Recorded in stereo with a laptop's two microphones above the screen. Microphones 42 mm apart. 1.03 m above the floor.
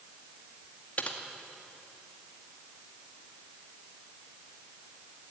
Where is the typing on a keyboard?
35° left (ahead or behind), 2 m.